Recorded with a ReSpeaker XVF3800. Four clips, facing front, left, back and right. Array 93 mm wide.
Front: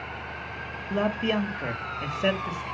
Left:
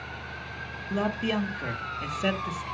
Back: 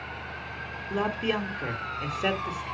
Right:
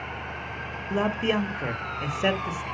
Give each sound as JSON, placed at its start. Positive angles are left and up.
{"t": 0.9, "sound": "a man speaking", "azimuth_deg": -75, "distance_m": 1.3}